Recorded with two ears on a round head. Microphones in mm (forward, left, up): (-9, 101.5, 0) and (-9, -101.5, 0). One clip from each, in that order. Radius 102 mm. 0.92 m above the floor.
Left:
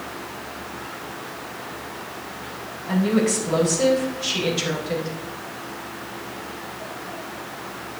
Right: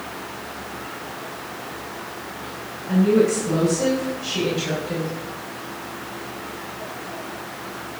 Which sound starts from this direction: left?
A woman speaking, at 2.9 s.